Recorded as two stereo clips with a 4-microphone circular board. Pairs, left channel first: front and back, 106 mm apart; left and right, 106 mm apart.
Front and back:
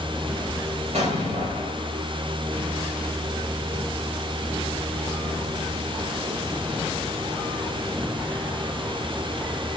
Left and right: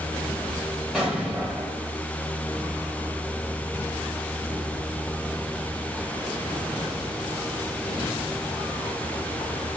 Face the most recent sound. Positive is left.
turn(degrees=-175)